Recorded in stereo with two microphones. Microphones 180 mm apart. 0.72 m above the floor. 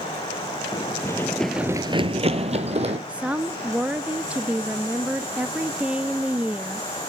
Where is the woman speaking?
5° right (ahead or behind), 0.6 m.